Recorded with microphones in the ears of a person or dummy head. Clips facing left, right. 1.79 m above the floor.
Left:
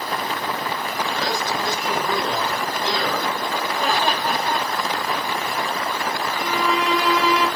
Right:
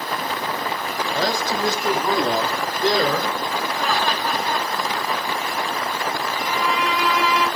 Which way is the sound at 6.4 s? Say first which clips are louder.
Left 2 dB; 35° left (ahead or behind).